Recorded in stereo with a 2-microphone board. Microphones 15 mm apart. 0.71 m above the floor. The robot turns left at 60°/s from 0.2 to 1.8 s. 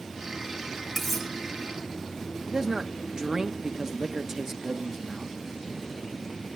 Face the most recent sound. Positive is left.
turn(degrees=-40)  # may be behind; listen again after turning